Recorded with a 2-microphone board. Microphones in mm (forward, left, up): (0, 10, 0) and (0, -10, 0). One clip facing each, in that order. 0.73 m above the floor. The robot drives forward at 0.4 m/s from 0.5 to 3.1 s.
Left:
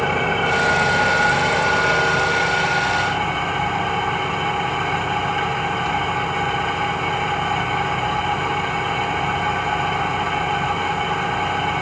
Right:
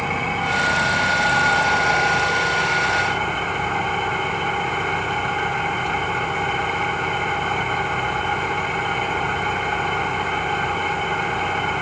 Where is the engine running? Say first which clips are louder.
Left 3 dB; 70° left (ahead or behind), 3 m; by 11.8 s 55° left (ahead or behind), 3.5 m.